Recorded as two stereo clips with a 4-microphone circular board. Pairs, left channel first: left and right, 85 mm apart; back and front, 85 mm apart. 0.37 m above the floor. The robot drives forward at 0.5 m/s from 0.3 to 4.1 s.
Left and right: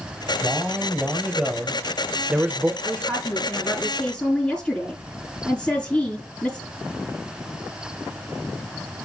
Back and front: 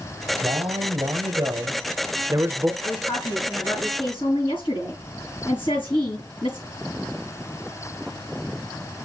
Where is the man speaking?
10° right, 1.7 m; by 2.7 s 35° right, 0.9 m.